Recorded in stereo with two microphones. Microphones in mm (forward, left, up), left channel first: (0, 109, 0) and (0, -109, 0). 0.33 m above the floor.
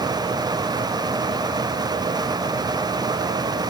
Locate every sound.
Only background noise.